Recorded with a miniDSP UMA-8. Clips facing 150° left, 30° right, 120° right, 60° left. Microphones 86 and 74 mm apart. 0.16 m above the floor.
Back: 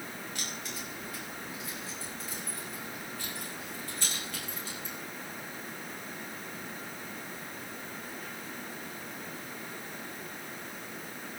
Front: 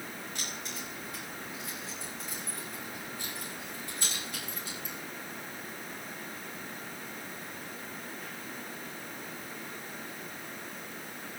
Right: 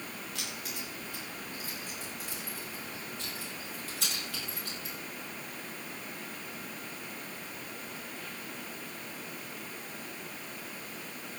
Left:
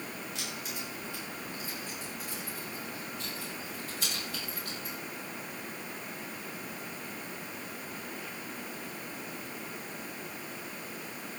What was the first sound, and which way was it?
Keys jangling, 95° right.